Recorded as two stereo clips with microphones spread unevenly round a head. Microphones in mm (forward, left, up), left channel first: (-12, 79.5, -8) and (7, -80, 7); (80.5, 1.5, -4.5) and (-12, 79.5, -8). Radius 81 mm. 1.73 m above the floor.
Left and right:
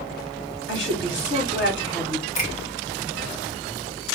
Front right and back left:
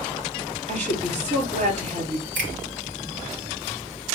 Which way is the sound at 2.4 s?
150° left.